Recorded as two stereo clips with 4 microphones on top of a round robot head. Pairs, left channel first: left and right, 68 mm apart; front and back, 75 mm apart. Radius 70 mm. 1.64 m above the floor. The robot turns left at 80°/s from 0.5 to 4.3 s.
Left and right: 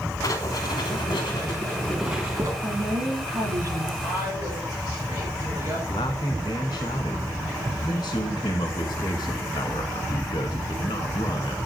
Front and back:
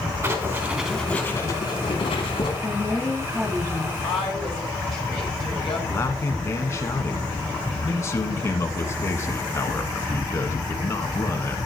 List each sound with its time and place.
0.2 s writing: 125° left, 3 m; by 2.5 s 35° right, 3 m
2.6 s a woman speaking: 35° right, 6 m; by 3.9 s 140° right, 6 m
4.0 s a woman speaking: 15° right, 6 m; by 5.8 s 40° right, 6 m
5.9 s a man speaking: 50° left, 1.9 m